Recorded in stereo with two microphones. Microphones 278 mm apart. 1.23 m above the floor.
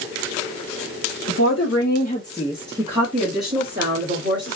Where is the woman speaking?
70° left (ahead or behind), 1.2 m; by 4.6 s 45° right (ahead or behind), 2.5 m.